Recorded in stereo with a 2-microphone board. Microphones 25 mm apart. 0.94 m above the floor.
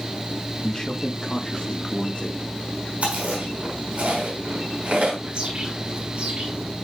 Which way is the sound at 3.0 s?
60° right (ahead or behind).